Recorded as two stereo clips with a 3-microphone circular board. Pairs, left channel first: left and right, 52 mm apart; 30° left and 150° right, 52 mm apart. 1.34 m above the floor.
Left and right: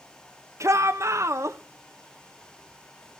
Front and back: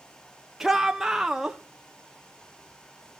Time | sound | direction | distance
0.6 | a shout | 70° right | 1.2 m